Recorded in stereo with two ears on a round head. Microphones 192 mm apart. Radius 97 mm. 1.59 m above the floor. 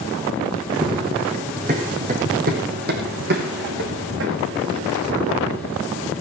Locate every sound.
0.7 s running footsteps: 20° right (ahead or behind), 3.5 m; by 6.1 s 75° right (ahead or behind), 5 m